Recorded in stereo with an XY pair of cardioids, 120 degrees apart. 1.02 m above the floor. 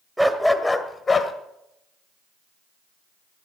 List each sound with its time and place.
0.2 s a dog barking: 5° right, 1.7 m; by 1.3 s 35° left, 1.8 m